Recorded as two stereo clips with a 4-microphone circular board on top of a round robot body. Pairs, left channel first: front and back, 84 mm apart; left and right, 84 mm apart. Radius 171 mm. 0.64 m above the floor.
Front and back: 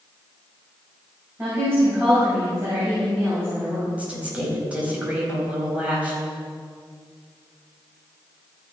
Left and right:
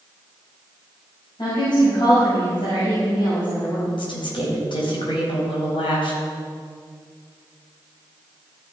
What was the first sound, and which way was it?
A woman speaking, 120° left.